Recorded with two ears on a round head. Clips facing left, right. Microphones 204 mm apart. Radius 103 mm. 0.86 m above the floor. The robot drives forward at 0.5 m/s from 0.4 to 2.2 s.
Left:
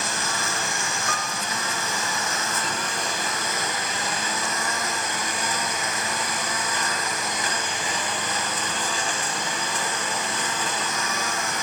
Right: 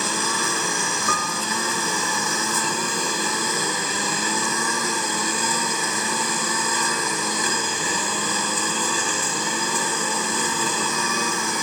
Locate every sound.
0.0 s a lawn mower: 75° right (ahead or behind); by 11.6 s 80° right
1.1 s a piano: 80° right